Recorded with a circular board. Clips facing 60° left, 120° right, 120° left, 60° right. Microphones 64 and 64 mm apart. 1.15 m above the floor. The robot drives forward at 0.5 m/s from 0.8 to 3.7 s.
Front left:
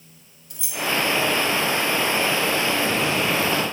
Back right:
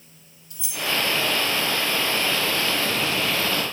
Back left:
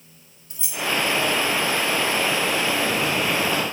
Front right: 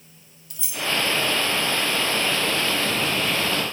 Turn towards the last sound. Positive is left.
turn(degrees=120)